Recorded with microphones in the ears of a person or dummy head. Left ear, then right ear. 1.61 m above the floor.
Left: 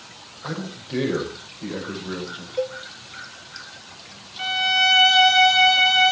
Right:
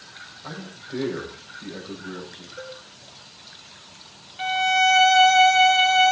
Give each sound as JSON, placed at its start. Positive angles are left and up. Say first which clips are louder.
{"t": 0.4, "sound": "a man speaking", "louder": "left 7 dB", "side_deg": 85, "distance_m": 6.5}
{"t": 2.6, "sound": "a cowbell", "louder": "left 12 dB", "side_deg": 60, "distance_m": 0.8}
{"t": 4.4, "sound": "a violin", "louder": "even", "side_deg": -10, "distance_m": 1.2}